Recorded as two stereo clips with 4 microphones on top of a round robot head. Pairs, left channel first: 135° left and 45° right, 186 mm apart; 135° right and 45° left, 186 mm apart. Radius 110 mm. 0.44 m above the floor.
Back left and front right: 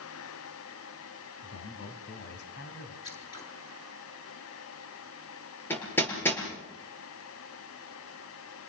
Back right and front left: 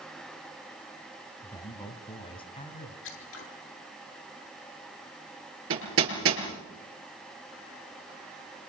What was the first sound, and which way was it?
A man speaking, 155° left.